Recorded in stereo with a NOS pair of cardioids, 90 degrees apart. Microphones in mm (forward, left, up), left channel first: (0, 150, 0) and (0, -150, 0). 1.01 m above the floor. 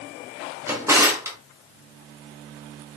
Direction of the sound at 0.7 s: 10° right.